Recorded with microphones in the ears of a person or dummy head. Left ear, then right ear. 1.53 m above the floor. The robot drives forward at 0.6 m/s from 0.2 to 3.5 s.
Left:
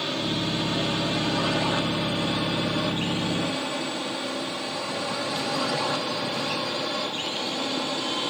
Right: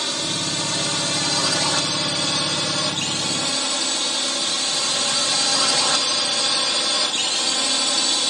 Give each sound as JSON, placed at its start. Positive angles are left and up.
{"t": 0.0, "sound": "a drone", "side_deg": -70}